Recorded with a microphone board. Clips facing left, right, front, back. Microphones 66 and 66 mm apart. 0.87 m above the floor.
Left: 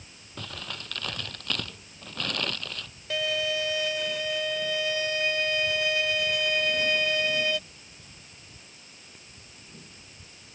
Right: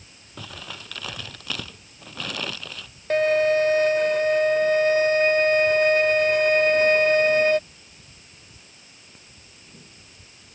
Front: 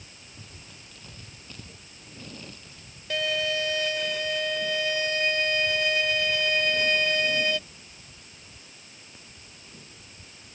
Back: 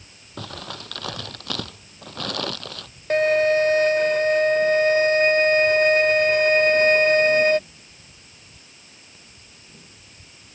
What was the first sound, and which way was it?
Crumpling, 175° right.